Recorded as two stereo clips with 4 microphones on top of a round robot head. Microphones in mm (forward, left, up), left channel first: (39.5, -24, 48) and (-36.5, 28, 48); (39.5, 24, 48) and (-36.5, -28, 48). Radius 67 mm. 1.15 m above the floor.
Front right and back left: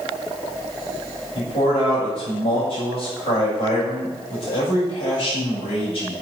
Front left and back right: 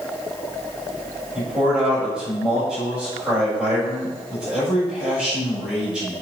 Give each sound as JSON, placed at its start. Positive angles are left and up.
{"t": 1.4, "sound": "a man speaking", "azimuth_deg": -60, "distance_m": 7.0}